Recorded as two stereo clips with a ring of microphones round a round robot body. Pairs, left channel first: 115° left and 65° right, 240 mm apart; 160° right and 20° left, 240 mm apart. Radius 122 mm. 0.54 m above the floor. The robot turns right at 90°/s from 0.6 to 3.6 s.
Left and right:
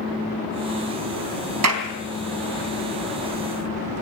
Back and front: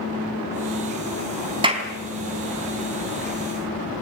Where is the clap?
50° right, 3.5 m; by 1.9 s 25° right, 3.5 m.